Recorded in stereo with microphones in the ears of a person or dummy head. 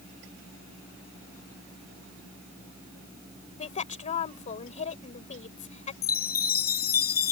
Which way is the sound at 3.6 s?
45° left (ahead or behind).